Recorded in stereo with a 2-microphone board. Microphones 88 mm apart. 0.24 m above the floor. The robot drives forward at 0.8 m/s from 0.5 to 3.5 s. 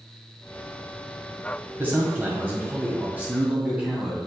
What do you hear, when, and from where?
1.8 s a man speaking: 20° right (ahead or behind), 1.5 m